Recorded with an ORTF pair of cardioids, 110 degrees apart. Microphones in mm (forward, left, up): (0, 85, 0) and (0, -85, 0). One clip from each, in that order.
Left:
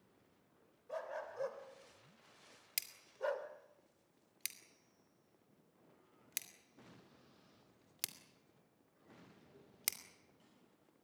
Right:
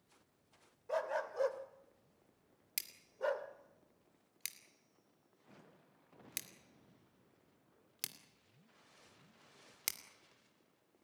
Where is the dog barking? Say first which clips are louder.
Right 7 dB; 50° right, 2.5 m; by 3.5 s 10° right, 2 m.